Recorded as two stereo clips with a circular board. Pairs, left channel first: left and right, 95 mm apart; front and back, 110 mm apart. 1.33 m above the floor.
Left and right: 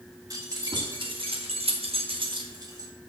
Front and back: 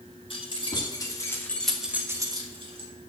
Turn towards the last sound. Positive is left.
turn(degrees=-145)